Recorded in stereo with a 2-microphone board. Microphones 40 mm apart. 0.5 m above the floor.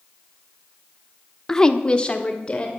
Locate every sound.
1.5 s a woman speaking: 10° left (ahead or behind), 0.9 m; by 2.7 s 30° left (ahead or behind), 1.8 m